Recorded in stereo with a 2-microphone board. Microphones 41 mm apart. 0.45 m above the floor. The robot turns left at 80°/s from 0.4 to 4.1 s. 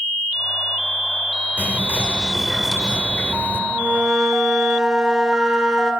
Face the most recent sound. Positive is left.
turn(degrees=-155)